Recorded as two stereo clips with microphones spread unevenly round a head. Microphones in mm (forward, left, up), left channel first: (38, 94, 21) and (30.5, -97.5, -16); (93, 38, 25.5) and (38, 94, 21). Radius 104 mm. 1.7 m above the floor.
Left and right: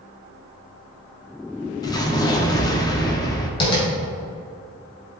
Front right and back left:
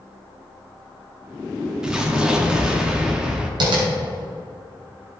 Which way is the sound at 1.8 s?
55° left.